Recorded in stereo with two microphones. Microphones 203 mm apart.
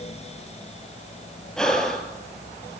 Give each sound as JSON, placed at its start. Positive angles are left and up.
{"t": 1.6, "sound": "breathing", "side_deg": 5, "distance_m": 1.3}